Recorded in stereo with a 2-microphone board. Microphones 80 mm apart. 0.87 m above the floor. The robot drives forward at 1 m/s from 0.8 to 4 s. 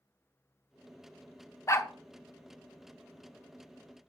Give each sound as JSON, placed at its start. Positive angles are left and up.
{"t": 1.7, "sound": "a dog barking", "side_deg": 40, "distance_m": 0.6}